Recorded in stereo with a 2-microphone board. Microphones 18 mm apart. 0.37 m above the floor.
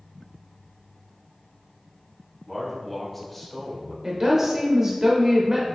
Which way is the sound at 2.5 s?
Centre (ahead or behind).